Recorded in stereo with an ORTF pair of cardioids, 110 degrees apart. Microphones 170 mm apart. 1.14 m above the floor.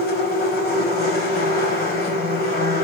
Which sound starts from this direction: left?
A machine running, at 0.0 s.